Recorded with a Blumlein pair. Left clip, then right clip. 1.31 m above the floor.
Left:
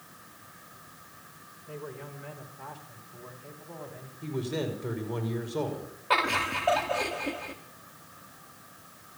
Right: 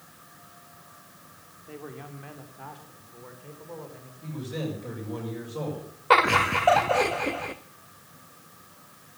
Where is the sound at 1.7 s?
20° right, 3 m; by 4.1 s 10° right, 4.5 m.